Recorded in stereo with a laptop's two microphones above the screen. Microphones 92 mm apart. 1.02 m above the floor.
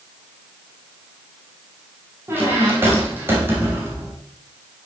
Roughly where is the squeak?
Right.